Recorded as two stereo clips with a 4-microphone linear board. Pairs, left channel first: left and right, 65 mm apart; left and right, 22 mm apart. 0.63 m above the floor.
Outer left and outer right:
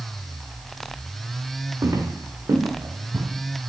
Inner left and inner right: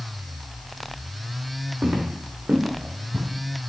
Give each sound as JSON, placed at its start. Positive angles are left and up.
{"t": 1.8, "sound": "footsteps", "side_deg": -60, "distance_m": 2.0}